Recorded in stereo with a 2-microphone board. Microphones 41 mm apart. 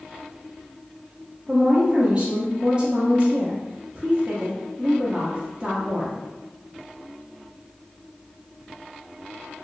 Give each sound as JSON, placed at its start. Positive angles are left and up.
{"t": 1.5, "sound": "a woman speaking", "side_deg": -25, "distance_m": 0.6}